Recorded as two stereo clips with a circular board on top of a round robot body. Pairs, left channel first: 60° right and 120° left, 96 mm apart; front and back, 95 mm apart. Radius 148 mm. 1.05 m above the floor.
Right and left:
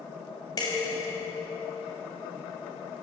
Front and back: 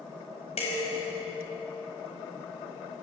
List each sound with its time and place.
0.6 s dishes clattering: 10° right, 5 m